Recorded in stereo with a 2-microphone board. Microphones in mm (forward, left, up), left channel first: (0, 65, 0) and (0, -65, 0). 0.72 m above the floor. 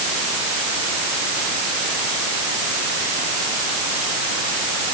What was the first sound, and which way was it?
Only background noise.